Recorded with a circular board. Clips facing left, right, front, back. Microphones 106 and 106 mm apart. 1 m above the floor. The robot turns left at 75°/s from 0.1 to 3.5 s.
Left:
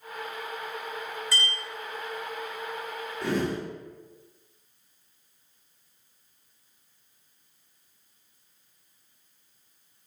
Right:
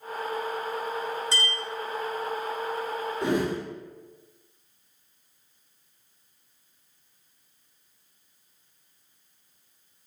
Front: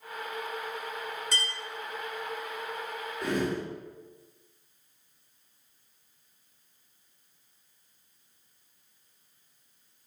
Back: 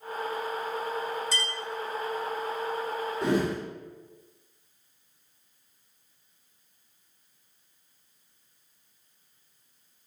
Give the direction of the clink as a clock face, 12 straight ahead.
1 o'clock.